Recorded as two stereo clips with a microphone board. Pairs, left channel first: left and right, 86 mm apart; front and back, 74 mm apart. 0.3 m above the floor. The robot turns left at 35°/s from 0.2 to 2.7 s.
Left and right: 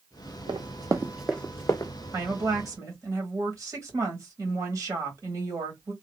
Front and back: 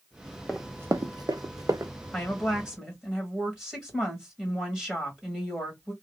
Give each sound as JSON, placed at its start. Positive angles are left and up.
{"t": 0.5, "sound": "running footsteps", "azimuth_deg": -85, "distance_m": 0.6}
{"t": 2.1, "sound": "a woman speaking", "azimuth_deg": -85, "distance_m": 1.8}